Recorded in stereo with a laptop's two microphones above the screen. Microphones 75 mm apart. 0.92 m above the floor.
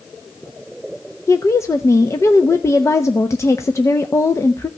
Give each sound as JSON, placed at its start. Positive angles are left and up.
{"t": 1.3, "sound": "a woman speaking", "side_deg": 40, "distance_m": 0.8}